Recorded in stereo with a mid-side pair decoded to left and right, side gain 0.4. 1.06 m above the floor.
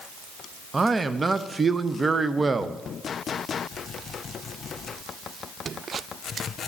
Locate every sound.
0.7 s a man speaking: 35° right, 0.7 m